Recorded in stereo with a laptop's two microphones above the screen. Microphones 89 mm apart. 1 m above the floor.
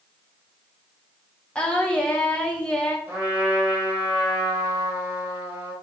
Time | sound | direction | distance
1.6 | singing | 15° left (ahead or behind) | 0.8 m
3.1 | a trumpet | 15° right (ahead or behind) | 2.5 m